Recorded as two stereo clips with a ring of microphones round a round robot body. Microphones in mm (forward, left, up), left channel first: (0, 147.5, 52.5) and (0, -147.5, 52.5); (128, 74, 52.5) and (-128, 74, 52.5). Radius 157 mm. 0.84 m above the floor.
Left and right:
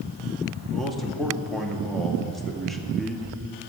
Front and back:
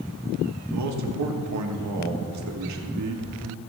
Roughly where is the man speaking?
Behind.